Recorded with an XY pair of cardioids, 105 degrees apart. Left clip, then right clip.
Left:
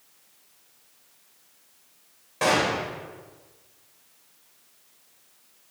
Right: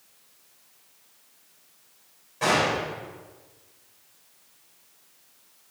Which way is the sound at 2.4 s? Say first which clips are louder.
Even; 60° left.